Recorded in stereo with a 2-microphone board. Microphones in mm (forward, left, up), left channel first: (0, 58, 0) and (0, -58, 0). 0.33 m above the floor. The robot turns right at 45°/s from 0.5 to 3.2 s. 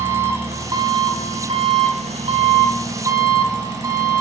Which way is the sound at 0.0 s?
155° right.